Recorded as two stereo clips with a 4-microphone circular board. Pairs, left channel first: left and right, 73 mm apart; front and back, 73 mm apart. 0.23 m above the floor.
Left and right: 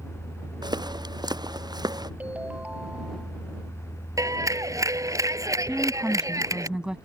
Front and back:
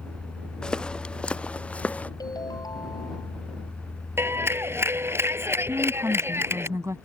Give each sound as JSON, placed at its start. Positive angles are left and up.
{"t": 0.6, "sound": "footsteps", "azimuth_deg": -80}
{"t": 2.2, "sound": "a ringtone", "azimuth_deg": -20}
{"t": 4.2, "sound": "a clap", "azimuth_deg": -125}
{"t": 5.7, "sound": "a woman speaking", "azimuth_deg": -160}